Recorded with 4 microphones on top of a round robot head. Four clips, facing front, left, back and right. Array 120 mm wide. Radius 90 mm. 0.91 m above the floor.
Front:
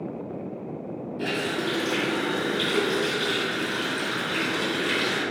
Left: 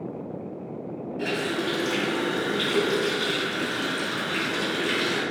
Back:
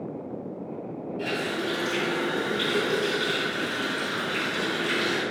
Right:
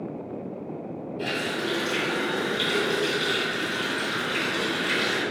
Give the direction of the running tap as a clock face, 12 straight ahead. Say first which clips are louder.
Left 2 dB, front 2 dB; 10 o'clock.